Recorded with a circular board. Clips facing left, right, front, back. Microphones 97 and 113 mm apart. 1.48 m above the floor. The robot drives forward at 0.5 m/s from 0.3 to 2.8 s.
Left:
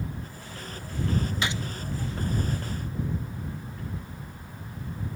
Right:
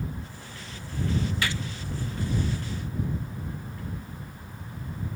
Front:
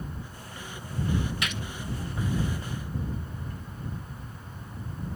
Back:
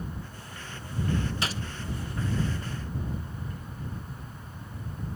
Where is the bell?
I don't hear a bell.